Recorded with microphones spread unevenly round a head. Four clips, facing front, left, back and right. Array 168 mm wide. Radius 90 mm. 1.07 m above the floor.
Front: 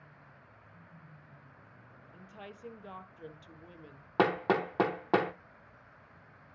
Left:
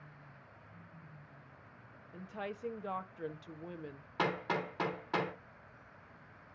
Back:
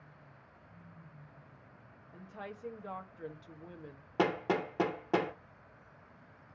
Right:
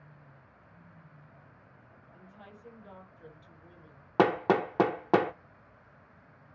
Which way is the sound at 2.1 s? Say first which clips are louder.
Left 11 dB, back 3 dB; 100° left.